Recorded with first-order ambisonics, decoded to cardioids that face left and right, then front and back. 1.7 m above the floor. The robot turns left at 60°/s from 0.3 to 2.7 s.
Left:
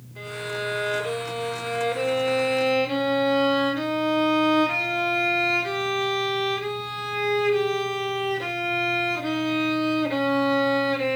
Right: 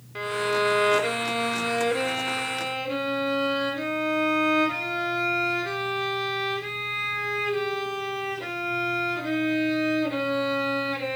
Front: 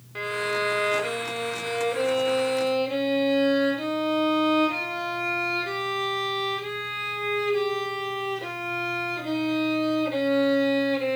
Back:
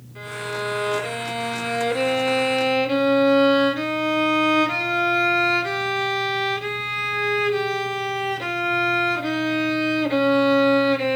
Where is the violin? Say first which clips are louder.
Right 6 dB, front 3 dB; 55° right, 2.5 m; by 11.2 s 160° left, 2.5 m.